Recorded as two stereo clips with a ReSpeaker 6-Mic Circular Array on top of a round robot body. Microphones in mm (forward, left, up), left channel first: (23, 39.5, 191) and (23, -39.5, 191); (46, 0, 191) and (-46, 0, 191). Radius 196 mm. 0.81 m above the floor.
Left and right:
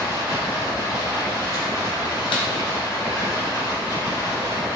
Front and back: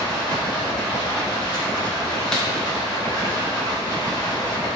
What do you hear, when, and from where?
0.0 s running water: 45° left, 2.0 m
2.3 s a snare drum: 85° left, 1.1 m